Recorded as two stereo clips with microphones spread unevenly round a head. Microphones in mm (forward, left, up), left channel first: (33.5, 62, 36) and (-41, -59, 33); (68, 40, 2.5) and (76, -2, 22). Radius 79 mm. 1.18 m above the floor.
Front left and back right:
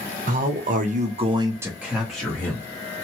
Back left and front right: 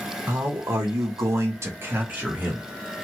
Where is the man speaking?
140° right, 1.1 m; by 2.6 s 20° right, 1.6 m.